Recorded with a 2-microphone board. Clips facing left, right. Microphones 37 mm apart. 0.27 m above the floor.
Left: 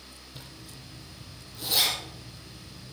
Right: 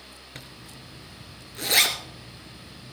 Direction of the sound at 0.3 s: 65° right (ahead or behind).